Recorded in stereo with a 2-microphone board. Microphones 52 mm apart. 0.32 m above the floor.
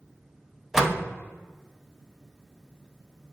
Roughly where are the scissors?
I don't hear scissors.